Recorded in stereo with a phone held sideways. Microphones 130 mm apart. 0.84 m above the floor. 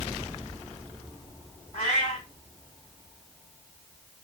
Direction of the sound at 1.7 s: 65° left (ahead or behind).